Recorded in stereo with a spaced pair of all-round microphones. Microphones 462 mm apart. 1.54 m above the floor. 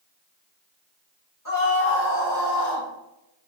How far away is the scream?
About 3 m.